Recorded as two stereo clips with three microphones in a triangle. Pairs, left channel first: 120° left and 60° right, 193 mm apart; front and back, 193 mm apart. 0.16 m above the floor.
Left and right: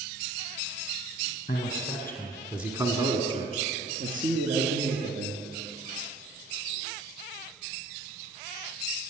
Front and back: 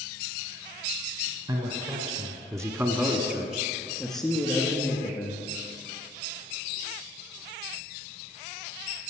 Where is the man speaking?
145° left, 1.4 m; by 5.4 s 80° right, 2.5 m.